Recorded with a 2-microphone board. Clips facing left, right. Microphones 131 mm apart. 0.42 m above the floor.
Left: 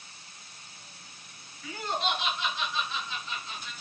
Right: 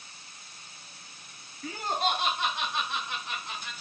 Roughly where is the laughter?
Right.